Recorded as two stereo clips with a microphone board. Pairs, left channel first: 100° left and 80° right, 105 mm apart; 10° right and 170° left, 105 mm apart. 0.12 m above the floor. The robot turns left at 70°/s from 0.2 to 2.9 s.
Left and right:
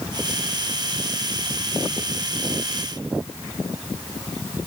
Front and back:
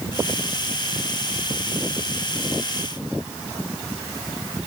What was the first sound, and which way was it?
Only background noise.